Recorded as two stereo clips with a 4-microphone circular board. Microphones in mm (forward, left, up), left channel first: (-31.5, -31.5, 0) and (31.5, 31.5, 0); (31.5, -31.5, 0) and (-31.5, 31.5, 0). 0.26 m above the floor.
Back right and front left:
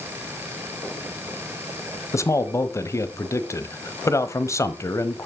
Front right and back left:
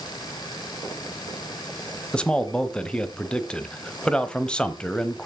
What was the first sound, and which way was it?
A man speaking, 115° right.